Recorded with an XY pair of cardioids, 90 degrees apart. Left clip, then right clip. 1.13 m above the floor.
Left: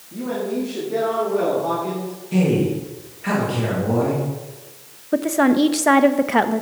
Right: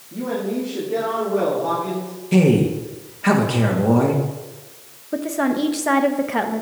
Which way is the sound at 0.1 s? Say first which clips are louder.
Even; 10° right.